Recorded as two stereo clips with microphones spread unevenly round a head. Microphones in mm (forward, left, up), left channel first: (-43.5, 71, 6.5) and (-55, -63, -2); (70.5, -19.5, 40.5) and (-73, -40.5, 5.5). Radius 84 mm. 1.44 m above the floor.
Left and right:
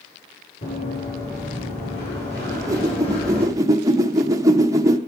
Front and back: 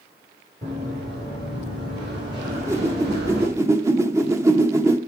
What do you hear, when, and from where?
0.6 s running footsteps: 120° left, 6.5 m; by 3.5 s 125° left, 3.5 m
2.5 s a whoosh: 95° right, 0.6 m